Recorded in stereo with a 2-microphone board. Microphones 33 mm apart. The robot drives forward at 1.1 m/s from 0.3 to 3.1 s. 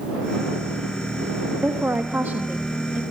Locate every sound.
1.6 s a woman speaking: 70° right (ahead or behind), 1.5 m; by 3.0 s 55° right (ahead or behind), 1.7 m